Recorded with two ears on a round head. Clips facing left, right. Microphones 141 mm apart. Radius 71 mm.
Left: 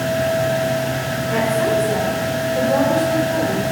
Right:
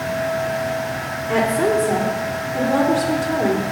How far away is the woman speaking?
About 3 m.